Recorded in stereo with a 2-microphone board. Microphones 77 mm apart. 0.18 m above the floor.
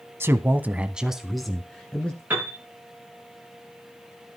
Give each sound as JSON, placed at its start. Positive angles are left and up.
{"t": 0.2, "sound": "a man speaking", "side_deg": -30, "distance_m": 1.2}
{"t": 2.3, "sound": "a piano", "side_deg": -25, "distance_m": 8.0}